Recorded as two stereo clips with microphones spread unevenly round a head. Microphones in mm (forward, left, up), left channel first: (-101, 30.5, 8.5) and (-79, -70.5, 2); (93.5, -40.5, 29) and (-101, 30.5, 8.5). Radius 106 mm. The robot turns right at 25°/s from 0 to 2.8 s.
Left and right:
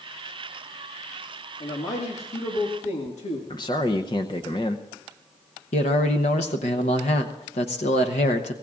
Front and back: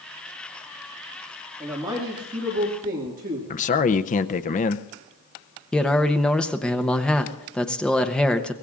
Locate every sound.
1.6 s a man speaking: 80° left, 1.9 m; by 3.4 s 110° left, 1.9 m
3.5 s a man speaking: 40° left, 0.5 m
5.7 s a man speaking: 70° left, 0.8 m